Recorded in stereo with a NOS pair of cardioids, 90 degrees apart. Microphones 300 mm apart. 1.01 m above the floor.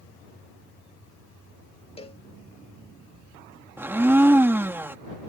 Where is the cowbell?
20° left.